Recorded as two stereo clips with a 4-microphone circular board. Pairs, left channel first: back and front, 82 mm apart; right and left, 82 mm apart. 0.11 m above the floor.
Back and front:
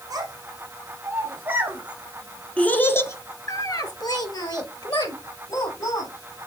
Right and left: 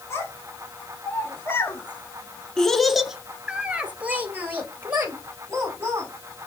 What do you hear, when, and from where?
0.1 s a child speaking: 40° right, 1.5 m; by 6.5 s 150° left, 2.5 m